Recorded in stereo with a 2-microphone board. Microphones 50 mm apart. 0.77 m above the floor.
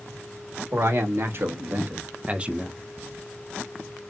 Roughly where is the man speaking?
Right.